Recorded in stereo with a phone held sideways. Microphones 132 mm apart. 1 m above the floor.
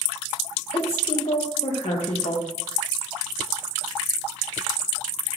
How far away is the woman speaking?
About 1.3 m.